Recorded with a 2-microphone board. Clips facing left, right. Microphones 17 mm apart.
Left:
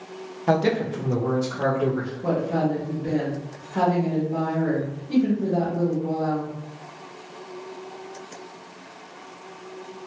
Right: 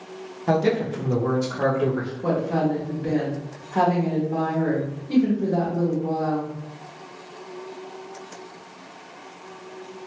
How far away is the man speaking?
About 0.6 m.